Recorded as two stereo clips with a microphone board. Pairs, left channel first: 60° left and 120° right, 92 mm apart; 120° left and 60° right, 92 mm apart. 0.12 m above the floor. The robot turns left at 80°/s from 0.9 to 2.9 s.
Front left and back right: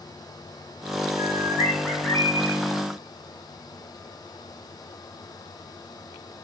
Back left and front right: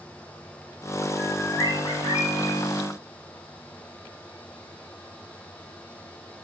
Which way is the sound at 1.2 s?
150° right.